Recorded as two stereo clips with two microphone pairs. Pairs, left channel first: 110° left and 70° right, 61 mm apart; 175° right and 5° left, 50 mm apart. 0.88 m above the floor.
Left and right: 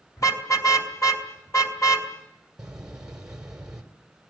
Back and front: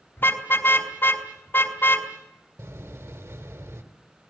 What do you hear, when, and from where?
0.2 s a car horn: 140° left, 3 m
2.6 s a door slam: 10° left, 3.5 m